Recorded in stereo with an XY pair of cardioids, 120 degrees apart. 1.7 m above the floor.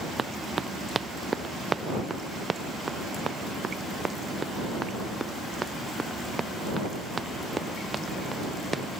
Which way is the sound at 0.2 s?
30° right.